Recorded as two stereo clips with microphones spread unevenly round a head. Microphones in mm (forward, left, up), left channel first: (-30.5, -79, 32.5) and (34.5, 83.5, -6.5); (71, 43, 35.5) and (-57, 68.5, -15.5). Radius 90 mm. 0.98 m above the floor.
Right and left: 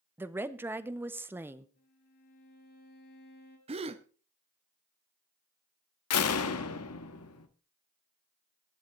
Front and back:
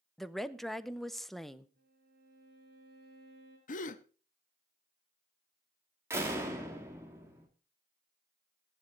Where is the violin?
150° right, 4 m.